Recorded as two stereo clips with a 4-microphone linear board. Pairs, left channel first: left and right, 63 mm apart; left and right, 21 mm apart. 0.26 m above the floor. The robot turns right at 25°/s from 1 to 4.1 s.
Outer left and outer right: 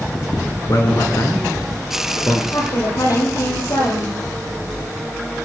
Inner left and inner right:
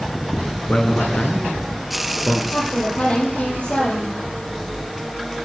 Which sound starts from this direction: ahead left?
A woman speaking, at 2.5 s.